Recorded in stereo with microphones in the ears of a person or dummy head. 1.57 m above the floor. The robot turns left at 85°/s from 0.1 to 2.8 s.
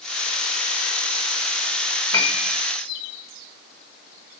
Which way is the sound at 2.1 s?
160° left.